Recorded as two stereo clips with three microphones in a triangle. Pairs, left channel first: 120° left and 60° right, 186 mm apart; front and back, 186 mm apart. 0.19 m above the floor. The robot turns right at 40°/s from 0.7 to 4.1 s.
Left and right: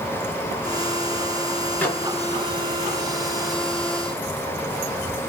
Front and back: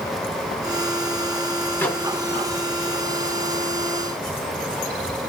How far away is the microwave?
About 0.9 m.